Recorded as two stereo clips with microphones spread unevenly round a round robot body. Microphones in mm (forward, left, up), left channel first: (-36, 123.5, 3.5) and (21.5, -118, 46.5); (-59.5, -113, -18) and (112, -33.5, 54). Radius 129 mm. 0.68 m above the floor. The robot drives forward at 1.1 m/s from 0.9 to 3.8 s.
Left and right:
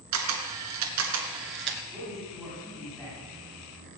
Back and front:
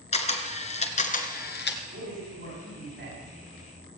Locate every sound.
0.1 s a camera shutter: 95° right, 1.9 m; by 1.8 s 120° right, 2 m
1.9 s a man speaking: 15° left, 7.5 m; by 3.2 s 20° left, 6 m